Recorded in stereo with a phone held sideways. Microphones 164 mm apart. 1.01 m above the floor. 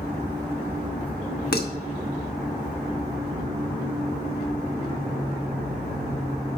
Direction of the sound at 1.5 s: 70° left (ahead or behind).